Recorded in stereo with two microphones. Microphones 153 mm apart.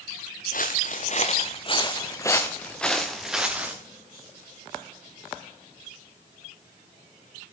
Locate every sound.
0.5 s footsteps: 60° left (ahead or behind), 1.8 m; by 3.8 s 10° right (ahead or behind), 2 m